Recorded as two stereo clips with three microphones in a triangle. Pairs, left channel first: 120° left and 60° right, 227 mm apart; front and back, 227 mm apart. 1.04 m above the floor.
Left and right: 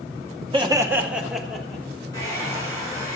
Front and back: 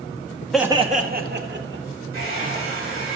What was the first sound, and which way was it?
Laughter, 85° right.